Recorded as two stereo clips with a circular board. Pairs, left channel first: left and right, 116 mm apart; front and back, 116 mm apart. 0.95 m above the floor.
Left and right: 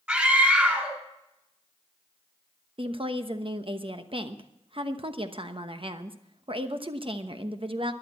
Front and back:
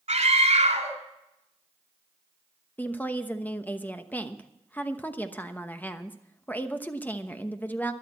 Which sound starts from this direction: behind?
A scream, at 0.1 s.